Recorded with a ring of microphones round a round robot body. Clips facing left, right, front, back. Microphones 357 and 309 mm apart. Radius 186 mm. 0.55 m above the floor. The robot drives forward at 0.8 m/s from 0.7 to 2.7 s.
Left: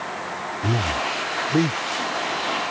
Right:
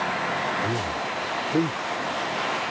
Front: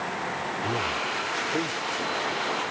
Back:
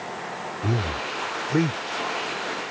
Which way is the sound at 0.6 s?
140° left.